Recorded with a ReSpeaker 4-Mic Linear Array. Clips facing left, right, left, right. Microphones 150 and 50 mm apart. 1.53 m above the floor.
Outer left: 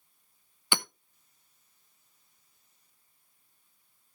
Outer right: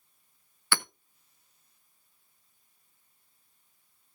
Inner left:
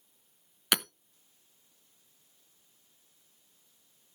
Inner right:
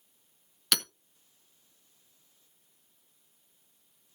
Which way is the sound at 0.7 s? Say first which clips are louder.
Even, inner left 2 dB; 20° left (ahead or behind).